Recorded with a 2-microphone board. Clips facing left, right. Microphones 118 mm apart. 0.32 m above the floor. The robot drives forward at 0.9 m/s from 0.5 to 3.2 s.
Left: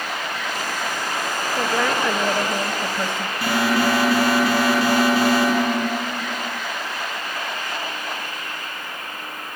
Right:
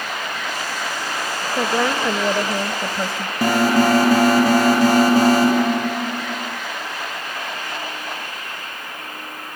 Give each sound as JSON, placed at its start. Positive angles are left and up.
{"t": 1.6, "sound": "a woman speaking", "side_deg": -15, "distance_m": 0.9}
{"t": 3.4, "sound": "an alarm", "side_deg": -40, "distance_m": 8.5}